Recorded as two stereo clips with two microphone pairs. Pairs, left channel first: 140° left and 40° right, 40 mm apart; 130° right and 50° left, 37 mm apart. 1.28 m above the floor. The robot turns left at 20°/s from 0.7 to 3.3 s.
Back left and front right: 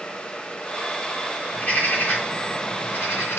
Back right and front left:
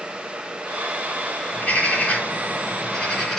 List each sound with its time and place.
1.5 s a bird: 175° right, 3 m; by 3.4 s 150° left, 3 m